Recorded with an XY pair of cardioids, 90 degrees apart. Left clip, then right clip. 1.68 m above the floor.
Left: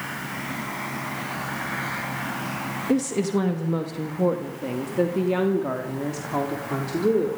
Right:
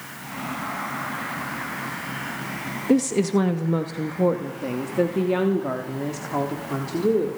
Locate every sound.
2.9 s a woman speaking: 30° right, 1.8 m; by 7.4 s straight ahead, 4 m